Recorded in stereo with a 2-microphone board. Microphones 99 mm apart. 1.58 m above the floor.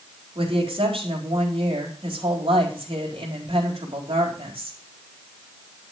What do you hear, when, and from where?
0.3 s a woman speaking: 65° right (ahead or behind), 4 m